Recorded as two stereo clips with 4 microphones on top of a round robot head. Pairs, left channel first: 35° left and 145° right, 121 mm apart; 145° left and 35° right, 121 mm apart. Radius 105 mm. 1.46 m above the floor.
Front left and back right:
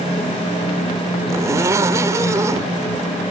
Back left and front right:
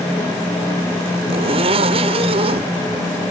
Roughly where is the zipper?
Right.